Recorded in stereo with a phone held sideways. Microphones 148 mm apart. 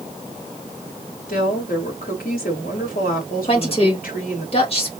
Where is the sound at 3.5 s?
40° left (ahead or behind), 2 m.